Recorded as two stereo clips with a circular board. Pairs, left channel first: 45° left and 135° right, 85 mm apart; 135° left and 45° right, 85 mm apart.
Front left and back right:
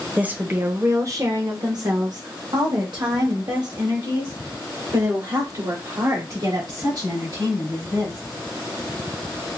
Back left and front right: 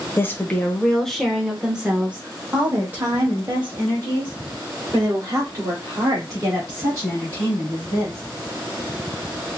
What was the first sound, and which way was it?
A woman speaking, 165° left.